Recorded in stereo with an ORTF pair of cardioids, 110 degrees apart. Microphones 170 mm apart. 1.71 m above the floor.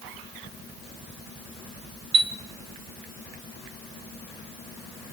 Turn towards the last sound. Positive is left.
turn(degrees=-35)